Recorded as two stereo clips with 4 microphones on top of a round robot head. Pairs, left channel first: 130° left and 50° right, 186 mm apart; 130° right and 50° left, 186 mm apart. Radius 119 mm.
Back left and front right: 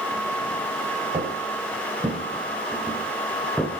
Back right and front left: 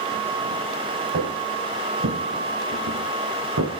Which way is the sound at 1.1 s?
20° left.